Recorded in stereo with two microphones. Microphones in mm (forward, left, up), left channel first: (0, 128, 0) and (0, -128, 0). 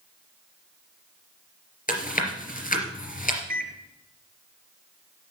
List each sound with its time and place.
1.9 s chewing: 35° left (ahead or behind), 3 m
3.5 s a microwave: 35° right (ahead or behind), 1.9 m